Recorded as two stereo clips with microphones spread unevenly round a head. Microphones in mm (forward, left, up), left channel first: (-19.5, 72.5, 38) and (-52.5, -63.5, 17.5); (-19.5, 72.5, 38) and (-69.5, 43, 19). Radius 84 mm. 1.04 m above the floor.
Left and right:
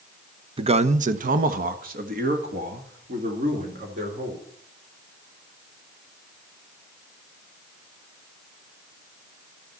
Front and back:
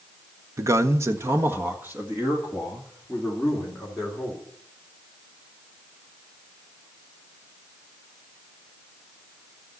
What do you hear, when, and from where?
0.6 s a man speaking: 150° right, 0.9 m; by 4.4 s 60° right, 3.5 m